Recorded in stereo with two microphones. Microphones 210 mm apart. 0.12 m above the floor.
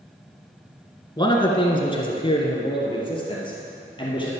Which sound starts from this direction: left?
A man speaking, at 1.2 s.